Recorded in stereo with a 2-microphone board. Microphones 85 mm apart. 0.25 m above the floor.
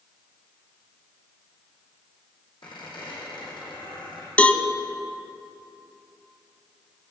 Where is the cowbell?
15° left (ahead or behind), 0.6 m.